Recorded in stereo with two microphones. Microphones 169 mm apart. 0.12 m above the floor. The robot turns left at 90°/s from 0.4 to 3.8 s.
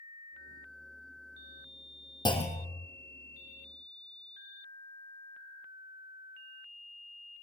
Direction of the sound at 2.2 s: 155° left.